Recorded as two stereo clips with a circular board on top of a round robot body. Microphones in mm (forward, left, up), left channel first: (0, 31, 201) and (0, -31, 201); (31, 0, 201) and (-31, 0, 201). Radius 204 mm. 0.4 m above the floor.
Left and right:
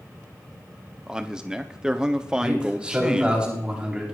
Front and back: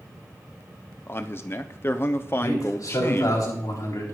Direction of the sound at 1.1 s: 20° right.